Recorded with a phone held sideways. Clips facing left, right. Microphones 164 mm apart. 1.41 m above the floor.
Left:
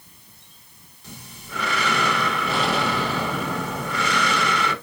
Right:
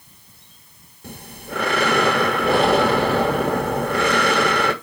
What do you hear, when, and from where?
1.0 s breathing: 55° right (ahead or behind), 1.6 m